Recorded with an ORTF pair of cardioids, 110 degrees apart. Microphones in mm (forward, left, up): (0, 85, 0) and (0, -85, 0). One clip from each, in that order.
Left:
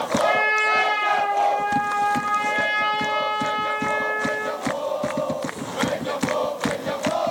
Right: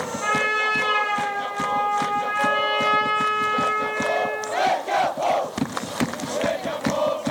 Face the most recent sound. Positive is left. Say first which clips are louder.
# left 2 dB
turn(degrees=40)